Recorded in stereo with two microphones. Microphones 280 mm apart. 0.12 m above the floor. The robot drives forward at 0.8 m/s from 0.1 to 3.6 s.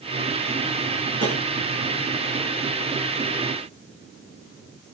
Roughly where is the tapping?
Right.